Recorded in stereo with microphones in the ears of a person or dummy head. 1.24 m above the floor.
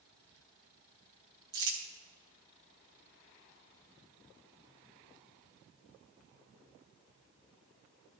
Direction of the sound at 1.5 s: 25° right (ahead or behind).